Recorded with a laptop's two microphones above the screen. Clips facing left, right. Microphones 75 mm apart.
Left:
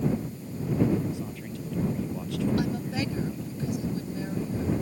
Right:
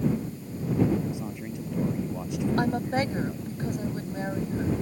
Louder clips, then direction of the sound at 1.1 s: Right 1 dB; 20° right (ahead or behind).